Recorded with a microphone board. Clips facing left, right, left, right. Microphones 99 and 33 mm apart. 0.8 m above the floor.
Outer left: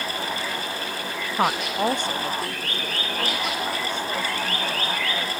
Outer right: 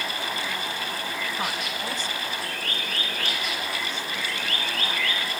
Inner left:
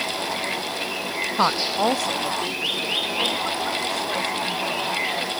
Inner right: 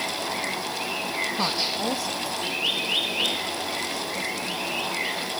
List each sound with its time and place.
1.4 s a woman speaking: 50° left (ahead or behind); by 5.3 s 60° left (ahead or behind)